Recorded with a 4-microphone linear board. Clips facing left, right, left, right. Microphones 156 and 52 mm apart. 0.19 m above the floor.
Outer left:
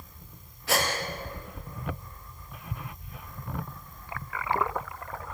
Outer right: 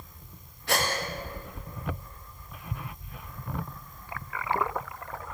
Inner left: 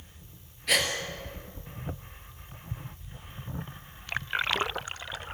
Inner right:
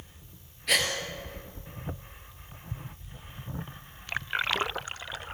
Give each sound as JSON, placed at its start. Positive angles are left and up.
{"t": 0.7, "sound": "a gasp", "side_deg": 0, "distance_m": 3.5}